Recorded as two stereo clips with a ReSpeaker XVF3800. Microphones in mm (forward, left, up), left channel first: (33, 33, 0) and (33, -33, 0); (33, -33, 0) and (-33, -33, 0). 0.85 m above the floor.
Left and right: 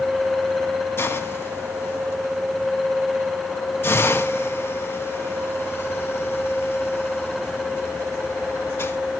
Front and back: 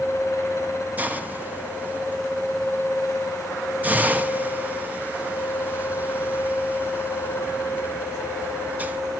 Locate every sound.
1.0 s a hiss: 125° left, 1.2 m